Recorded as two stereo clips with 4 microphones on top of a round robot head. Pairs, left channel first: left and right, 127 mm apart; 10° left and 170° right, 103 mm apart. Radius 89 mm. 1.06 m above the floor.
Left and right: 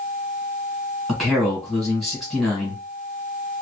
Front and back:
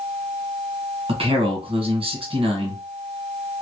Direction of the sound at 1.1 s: Straight behind.